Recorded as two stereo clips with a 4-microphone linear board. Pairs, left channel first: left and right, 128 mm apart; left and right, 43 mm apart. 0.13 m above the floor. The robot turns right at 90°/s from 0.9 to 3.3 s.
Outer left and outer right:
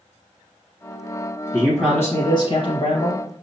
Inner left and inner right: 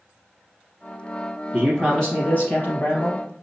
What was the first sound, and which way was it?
A man speaking, 20° right.